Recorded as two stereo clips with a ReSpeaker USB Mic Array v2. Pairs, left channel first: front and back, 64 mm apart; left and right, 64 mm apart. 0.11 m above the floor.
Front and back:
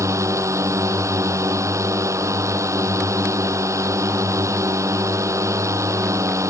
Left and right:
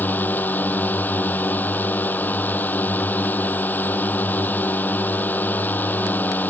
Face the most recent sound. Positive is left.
turn(degrees=150)